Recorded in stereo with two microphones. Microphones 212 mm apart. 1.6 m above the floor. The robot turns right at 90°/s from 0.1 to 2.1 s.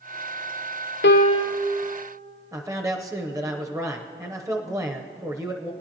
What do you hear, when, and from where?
1.0 s a piano: 120° left, 0.5 m; by 1.7 s straight behind, 0.5 m
2.5 s a man speaking: 15° right (ahead or behind), 0.7 m